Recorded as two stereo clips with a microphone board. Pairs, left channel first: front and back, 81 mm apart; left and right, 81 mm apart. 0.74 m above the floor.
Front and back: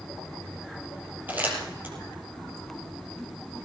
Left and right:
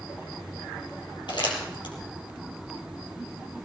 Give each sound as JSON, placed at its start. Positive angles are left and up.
{"t": 1.3, "sound": "crumpling", "azimuth_deg": 115, "distance_m": 4.0}